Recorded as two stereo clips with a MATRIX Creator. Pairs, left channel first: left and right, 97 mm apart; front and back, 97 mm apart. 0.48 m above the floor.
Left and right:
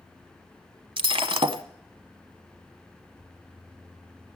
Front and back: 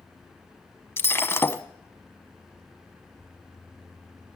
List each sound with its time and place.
1.0 s breaking glass: 65° right, 0.9 m